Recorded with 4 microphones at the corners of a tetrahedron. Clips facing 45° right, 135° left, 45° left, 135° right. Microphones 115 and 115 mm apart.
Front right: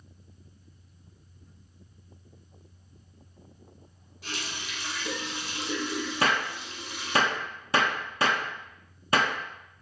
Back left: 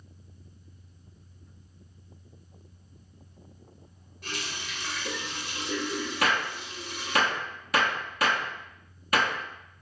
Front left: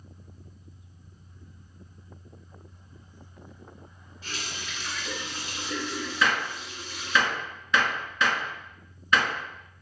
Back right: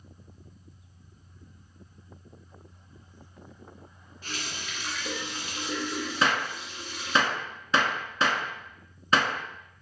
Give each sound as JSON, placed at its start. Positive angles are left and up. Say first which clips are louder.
{"t": 4.2, "sound": "a running tap", "louder": "even, even", "azimuth_deg": -130, "distance_m": 1.2}
{"t": 6.2, "sound": "a gunshot", "louder": "front right 1 dB, even", "azimuth_deg": -90, "distance_m": 0.6}